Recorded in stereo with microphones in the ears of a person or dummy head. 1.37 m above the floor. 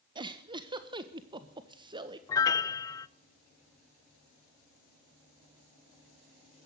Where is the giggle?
25° right (ahead or behind), 1.6 m.